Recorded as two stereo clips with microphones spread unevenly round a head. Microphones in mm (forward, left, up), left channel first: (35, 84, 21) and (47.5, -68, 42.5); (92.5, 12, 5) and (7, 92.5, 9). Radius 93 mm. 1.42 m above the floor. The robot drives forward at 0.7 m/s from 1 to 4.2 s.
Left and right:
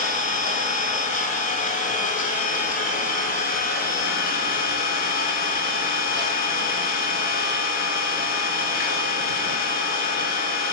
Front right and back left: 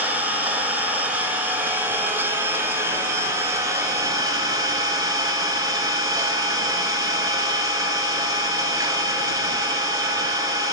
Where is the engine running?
55° left, 7 m; by 10.7 s 75° left, 6 m.